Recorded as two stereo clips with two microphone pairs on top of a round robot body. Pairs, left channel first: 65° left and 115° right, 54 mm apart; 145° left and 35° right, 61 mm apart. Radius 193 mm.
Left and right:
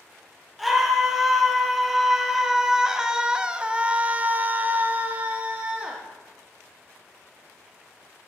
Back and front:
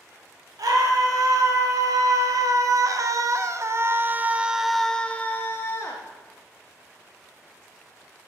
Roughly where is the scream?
Ahead right.